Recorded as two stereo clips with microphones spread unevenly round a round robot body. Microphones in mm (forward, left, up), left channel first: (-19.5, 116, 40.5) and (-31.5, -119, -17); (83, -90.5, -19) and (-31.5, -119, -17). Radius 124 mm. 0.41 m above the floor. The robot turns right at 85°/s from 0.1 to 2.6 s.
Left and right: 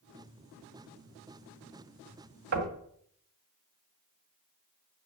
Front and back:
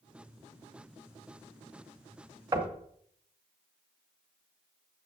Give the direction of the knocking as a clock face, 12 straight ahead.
4 o'clock.